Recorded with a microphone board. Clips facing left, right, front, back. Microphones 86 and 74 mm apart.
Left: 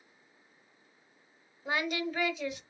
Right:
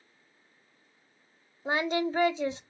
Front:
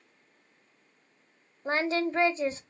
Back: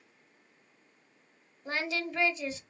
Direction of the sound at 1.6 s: 40° right.